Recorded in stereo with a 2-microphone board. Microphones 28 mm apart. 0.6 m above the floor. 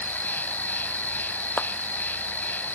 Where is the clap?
70° left (ahead or behind).